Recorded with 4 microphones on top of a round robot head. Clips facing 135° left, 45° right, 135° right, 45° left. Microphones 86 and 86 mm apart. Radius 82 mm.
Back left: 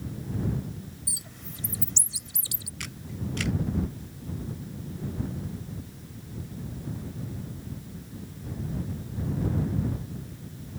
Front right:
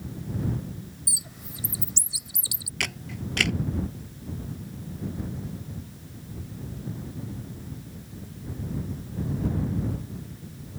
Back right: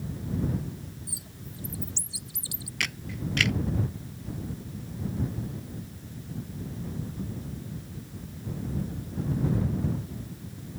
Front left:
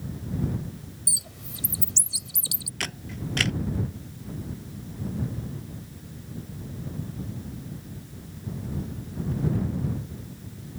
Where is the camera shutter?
15° right.